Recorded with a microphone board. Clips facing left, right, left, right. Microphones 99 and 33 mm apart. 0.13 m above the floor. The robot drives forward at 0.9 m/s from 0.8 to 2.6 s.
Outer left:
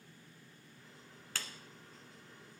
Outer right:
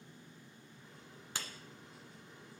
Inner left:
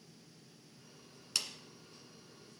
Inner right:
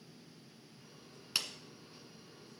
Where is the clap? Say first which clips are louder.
Outer right 1 dB, inner right 1 dB; 20° right (ahead or behind), 1.3 m.